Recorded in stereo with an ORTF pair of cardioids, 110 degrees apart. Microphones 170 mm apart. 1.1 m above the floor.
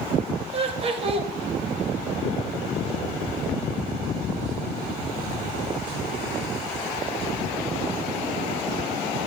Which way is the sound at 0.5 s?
35° right.